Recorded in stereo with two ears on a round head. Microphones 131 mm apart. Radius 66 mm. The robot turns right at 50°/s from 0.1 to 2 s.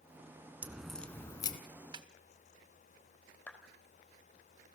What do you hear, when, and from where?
0.6 s a crack: 10° right, 1.7 m; by 1.6 s 35° left, 1.7 m
1.9 s a snare drum: 30° right (ahead or behind), 1.5 m; by 2.1 s 35° right (ahead or behind), 1.5 m
3.5 s a clap: 10° left (ahead or behind), 3 m